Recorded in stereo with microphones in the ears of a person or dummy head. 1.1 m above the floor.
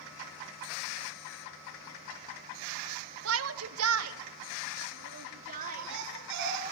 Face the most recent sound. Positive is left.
turn(degrees=-70)  # may be behind; listen again after turning